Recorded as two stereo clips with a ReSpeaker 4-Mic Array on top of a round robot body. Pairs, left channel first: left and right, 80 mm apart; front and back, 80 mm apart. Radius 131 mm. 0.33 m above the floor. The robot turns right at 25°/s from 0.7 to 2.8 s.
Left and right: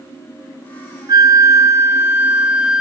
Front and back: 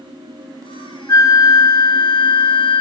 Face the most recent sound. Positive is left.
turn(degrees=-5)